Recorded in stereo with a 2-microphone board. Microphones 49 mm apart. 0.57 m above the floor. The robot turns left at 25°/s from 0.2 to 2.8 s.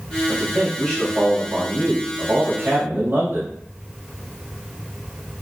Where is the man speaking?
10° left, 2.5 m; by 3.5 s 50° right, 2.5 m.